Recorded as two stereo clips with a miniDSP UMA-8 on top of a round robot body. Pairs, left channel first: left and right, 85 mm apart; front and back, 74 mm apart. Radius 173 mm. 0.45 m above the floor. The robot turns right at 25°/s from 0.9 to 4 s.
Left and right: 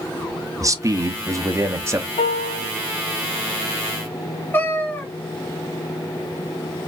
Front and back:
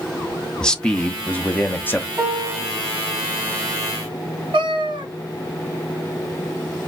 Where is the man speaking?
75° right, 1.1 m; by 2.1 s 45° right, 1.1 m.